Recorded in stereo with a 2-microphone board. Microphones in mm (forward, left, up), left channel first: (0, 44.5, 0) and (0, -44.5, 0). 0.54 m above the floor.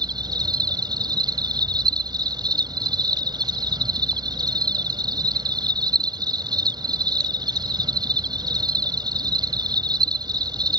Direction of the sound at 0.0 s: 55° right (ahead or behind).